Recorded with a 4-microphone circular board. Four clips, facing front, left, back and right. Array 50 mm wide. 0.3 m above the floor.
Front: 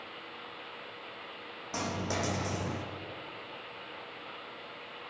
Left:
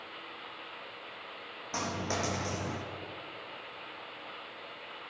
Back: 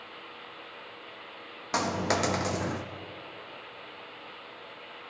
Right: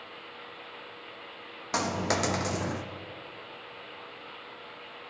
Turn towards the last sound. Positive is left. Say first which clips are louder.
# right 6 dB, back 6 dB
turn(degrees=-145)